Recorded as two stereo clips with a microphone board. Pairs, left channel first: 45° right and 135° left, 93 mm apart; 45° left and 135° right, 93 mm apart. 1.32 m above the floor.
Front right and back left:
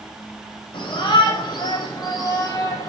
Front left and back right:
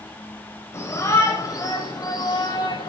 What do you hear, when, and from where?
0.7 s a shout: 15° right, 6 m; by 2.9 s 5° left, 7 m